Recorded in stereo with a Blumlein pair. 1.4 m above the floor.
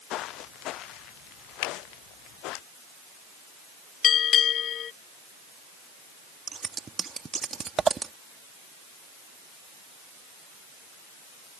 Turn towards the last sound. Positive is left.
turn(degrees=-15)